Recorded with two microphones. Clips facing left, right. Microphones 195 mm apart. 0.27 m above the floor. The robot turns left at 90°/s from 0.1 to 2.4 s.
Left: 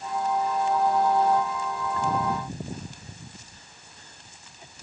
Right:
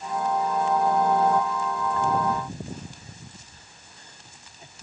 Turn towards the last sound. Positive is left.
No sound to turn to.